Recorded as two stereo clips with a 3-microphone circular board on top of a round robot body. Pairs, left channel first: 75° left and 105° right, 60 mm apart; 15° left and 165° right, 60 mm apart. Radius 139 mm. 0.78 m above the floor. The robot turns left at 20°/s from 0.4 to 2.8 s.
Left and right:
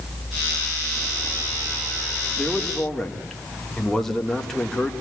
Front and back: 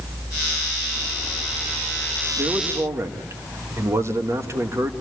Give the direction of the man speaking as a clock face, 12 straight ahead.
6 o'clock.